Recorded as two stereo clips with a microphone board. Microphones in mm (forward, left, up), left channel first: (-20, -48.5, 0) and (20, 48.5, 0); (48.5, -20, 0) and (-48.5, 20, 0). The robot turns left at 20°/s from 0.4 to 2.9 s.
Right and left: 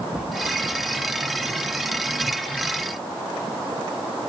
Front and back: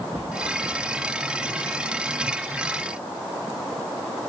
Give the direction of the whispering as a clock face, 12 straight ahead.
7 o'clock.